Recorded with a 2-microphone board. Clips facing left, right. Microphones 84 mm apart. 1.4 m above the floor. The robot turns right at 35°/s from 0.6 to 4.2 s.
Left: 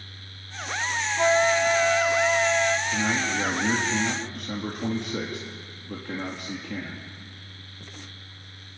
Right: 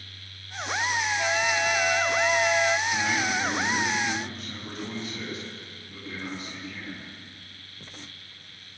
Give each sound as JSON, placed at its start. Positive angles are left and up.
{"t": 1.2, "sound": "a flute", "azimuth_deg": 130, "distance_m": 0.6}
{"t": 2.9, "sound": "a man speaking", "azimuth_deg": 15, "distance_m": 3.0}